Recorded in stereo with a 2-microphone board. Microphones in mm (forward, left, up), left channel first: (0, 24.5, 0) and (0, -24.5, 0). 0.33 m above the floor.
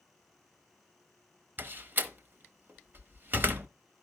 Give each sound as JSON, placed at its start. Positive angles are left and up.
{"t": 1.6, "sound": "a door slam", "side_deg": -45, "distance_m": 0.9}